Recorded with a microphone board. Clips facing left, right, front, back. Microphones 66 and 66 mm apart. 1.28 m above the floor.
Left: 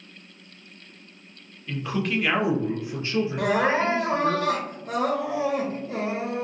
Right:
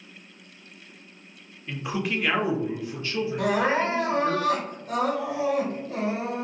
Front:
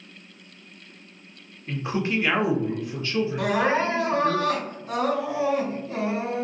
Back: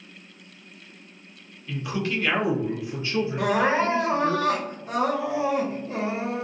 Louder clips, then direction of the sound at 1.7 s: Left 2 dB, front 2 dB; 25° right.